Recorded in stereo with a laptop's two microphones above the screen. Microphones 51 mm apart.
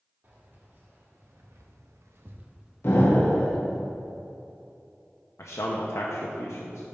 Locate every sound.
0.2 s keys jangling: 40° right (ahead or behind), 1.9 m; by 3.8 s 5° left (ahead or behind), 1.7 m
2.8 s an explosion: 50° left (ahead or behind), 1.2 m
5.4 s a man speaking: 70° left (ahead or behind), 0.7 m